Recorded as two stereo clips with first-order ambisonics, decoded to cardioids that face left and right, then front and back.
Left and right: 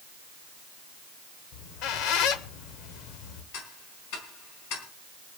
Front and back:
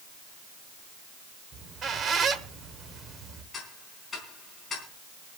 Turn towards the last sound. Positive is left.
turn(degrees=75)